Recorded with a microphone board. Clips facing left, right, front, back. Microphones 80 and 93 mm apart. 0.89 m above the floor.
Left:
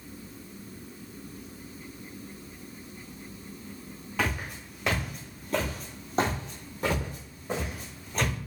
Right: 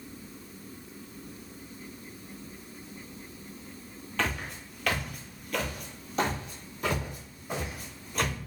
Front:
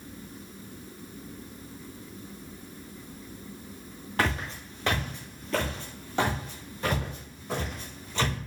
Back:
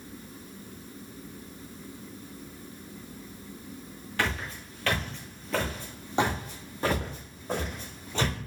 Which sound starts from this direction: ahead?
Footsteps, at 4.2 s.